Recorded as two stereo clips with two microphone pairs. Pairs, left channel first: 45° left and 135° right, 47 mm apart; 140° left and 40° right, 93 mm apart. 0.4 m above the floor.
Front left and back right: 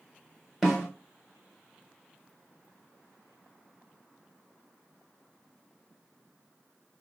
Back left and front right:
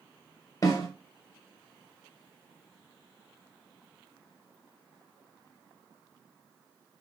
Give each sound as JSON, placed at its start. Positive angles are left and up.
{"t": 0.6, "sound": "a snare drum", "azimuth_deg": 135, "distance_m": 1.6}